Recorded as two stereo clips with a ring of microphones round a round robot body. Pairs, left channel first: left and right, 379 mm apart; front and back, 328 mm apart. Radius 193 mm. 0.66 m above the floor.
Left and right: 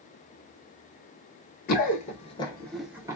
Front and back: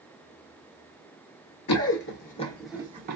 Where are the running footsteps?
30° left, 0.9 m; by 3.2 s 160° right, 0.7 m.